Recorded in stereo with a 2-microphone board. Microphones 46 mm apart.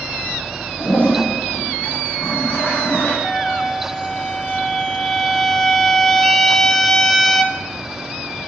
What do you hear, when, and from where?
0.8 s a toilet flushing: 45° left (ahead or behind), 5.5 m
3.2 s a trumpet: 5° left (ahead or behind), 0.9 m